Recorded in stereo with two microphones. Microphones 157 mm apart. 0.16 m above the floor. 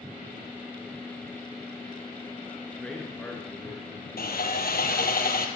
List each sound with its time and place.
2.7 s a man speaking: 5° left (ahead or behind), 2.5 m
4.2 s sawing: 75° left (ahead or behind), 1.8 m